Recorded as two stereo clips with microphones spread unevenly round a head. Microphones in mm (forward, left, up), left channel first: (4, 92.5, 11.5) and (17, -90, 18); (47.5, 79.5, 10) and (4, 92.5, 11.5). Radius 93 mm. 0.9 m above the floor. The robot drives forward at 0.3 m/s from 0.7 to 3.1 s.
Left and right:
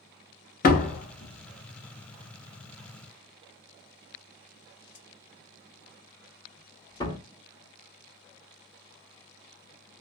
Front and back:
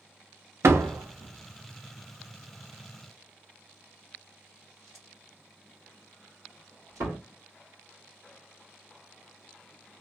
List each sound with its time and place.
0.6 s a door slam: 140° left, 0.7 m; by 7.2 s 160° left, 1.3 m